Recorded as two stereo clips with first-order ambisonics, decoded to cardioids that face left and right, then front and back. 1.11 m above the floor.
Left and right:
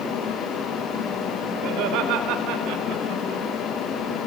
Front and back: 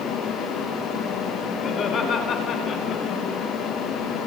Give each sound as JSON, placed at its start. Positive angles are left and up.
{"t": 1.6, "sound": "laughter", "azimuth_deg": -60, "distance_m": 4.0}